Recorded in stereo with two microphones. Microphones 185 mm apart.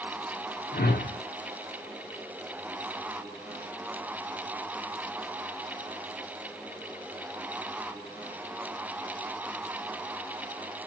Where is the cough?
I don't hear a cough.